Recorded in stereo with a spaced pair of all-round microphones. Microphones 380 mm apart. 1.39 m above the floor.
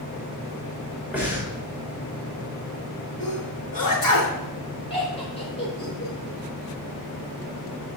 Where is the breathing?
5° right (ahead or behind), 3 m.